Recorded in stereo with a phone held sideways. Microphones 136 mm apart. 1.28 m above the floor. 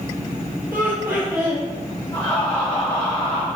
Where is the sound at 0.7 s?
15° right (ahead or behind), 1.7 m.